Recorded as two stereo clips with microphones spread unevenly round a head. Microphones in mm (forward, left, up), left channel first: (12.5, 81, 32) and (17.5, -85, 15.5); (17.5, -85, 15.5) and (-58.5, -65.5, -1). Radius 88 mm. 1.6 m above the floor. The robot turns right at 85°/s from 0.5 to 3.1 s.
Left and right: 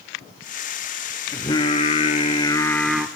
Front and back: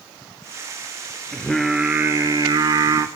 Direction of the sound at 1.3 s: 35° left.